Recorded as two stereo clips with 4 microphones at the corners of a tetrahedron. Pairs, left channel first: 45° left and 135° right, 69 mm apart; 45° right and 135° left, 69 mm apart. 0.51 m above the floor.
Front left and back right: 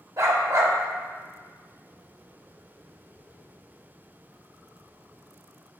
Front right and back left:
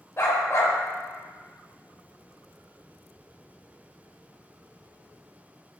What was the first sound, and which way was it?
A dog barking, 95° right.